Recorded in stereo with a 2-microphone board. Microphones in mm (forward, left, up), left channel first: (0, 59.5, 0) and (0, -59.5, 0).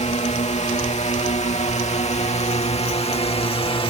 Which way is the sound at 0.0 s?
70° left (ahead or behind).